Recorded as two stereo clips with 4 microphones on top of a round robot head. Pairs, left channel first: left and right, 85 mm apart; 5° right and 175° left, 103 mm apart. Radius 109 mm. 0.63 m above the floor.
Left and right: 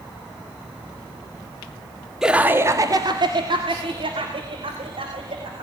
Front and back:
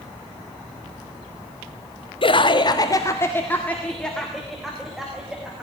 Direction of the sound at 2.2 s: 5° right.